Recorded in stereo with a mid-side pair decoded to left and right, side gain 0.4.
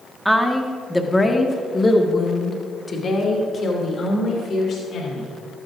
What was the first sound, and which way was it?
A woman speaking, 5° right.